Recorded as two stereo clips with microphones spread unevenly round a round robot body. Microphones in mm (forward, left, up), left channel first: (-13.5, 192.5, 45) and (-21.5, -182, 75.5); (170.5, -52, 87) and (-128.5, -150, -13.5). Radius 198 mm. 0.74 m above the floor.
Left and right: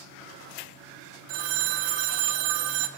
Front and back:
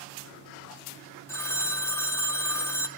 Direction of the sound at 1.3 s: 65° right.